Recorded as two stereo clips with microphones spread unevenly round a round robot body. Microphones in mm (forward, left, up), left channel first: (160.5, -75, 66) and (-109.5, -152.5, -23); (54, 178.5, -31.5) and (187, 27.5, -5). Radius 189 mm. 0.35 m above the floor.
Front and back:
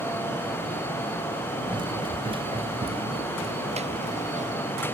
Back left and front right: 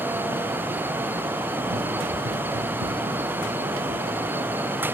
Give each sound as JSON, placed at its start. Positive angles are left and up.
{"t": 1.7, "sound": "running footsteps", "azimuth_deg": -90}